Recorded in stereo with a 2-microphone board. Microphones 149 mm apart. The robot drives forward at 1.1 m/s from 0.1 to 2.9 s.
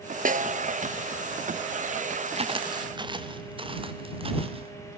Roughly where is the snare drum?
Right.